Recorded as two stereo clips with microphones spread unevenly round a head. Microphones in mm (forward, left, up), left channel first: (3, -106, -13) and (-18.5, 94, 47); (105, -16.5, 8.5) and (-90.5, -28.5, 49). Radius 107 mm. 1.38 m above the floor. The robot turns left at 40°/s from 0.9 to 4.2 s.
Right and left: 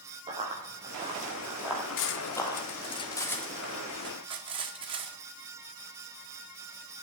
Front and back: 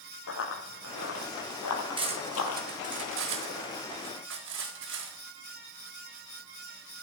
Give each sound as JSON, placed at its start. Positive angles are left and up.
{"t": 0.3, "sound": "running footsteps", "azimuth_deg": 35, "distance_m": 3.5}
{"t": 2.0, "sound": "cutlery clinking", "azimuth_deg": -115, "distance_m": 1.8}